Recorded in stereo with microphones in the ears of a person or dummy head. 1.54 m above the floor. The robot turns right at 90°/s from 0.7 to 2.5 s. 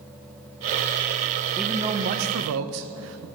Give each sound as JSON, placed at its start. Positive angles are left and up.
{"t": 1.6, "sound": "a man speaking", "azimuth_deg": 175, "distance_m": 1.0}